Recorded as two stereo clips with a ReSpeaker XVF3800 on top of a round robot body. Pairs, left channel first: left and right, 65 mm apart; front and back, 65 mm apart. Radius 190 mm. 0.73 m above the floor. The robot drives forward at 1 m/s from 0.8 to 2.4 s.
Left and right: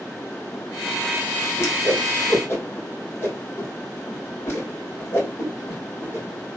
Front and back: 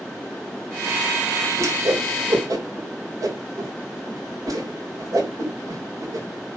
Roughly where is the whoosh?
Behind left.